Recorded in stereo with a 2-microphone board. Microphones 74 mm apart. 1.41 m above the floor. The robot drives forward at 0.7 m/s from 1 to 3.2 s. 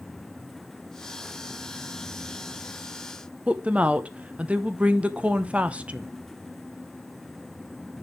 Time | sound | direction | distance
3.5 | a woman speaking | 15° right (ahead or behind) | 0.7 m